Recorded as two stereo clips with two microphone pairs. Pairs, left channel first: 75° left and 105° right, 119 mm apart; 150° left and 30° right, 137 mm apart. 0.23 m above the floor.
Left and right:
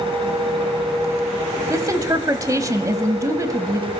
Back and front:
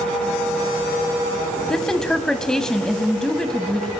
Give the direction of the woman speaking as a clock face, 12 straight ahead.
4 o'clock.